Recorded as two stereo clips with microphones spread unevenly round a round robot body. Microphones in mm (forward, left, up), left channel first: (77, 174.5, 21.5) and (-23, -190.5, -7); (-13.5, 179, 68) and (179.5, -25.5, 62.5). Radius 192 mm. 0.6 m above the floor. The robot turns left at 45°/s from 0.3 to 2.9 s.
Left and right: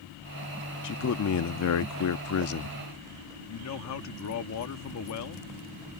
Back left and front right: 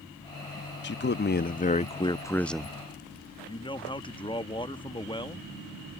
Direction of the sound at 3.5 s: 70° left.